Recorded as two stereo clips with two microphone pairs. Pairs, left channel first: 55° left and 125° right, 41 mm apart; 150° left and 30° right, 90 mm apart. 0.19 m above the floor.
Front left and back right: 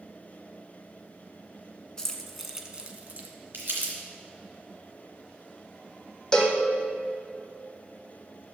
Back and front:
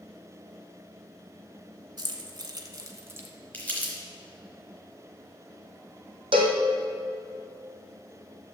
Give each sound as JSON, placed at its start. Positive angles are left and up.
{"t": 2.0, "sound": "keys jangling", "azimuth_deg": -15, "distance_m": 1.3}
{"t": 3.5, "sound": "crumpling", "azimuth_deg": -140, "distance_m": 3.0}
{"t": 6.3, "sound": "a cowbell", "azimuth_deg": -20, "distance_m": 1.6}